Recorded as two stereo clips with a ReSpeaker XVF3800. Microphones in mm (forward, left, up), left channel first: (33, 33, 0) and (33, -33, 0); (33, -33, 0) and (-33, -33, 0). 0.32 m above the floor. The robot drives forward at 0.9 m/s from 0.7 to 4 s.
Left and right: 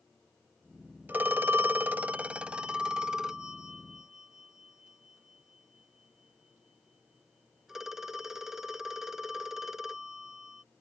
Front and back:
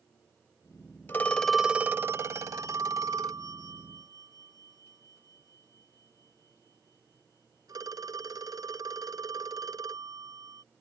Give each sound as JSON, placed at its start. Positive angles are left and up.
{"t": 1.1, "sound": "a phone ringing", "azimuth_deg": -40}